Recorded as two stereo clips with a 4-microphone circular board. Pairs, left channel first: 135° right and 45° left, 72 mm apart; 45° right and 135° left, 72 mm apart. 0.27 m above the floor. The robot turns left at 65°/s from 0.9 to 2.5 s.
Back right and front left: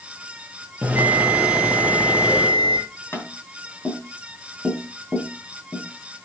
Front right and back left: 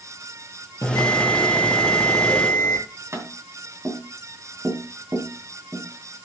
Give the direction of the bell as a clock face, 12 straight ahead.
12 o'clock.